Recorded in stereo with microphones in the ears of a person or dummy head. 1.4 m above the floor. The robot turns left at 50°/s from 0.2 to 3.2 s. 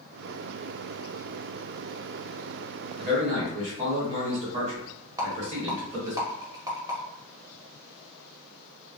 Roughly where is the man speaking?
Right.